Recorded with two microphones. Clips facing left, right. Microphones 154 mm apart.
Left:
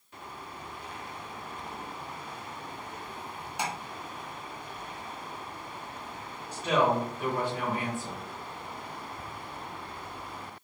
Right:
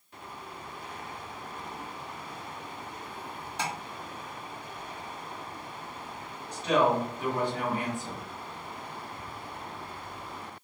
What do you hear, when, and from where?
3.6 s tapping: 10° left (ahead or behind), 1.2 m
6.5 s a woman speaking: 10° left (ahead or behind), 1.4 m